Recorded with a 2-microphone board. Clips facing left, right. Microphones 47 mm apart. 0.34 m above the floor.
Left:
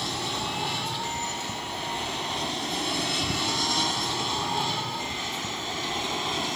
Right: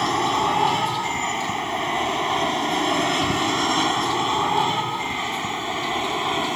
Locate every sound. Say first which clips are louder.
0.0 s an aircraft: right 10 dB; 45° right (ahead or behind); by 6.5 s 25° right (ahead or behind)